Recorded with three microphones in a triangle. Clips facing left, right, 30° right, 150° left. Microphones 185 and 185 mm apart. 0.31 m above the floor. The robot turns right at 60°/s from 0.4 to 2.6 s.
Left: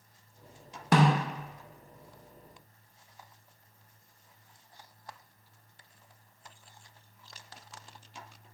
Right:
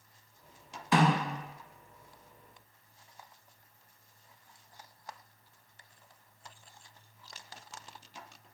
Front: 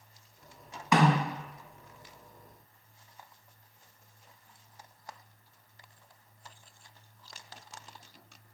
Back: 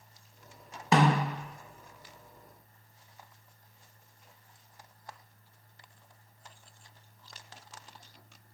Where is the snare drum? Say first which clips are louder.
Left 2 dB, even; 95° left, 0.7 m; by 1.3 s 120° left, 0.7 m.